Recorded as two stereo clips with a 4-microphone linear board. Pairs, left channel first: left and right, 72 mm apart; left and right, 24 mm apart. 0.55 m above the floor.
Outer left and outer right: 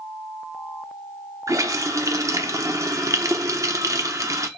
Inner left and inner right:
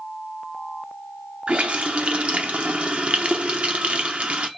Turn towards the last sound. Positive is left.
turn(degrees=-50)  # may be behind; listen again after turning